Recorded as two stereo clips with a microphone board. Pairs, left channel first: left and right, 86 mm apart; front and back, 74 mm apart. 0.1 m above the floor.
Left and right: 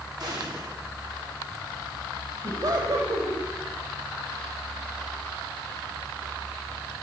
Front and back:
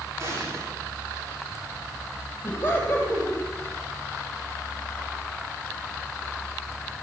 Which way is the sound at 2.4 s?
65° right.